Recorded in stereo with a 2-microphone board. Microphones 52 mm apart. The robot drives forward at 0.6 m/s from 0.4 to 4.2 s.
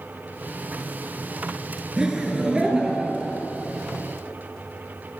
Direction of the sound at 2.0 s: 15° right (ahead or behind).